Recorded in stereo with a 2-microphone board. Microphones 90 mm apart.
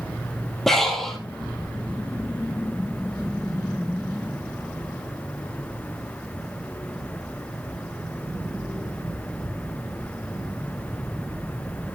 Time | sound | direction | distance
0.7 | breathing | 5° left (ahead or behind) | 2.5 m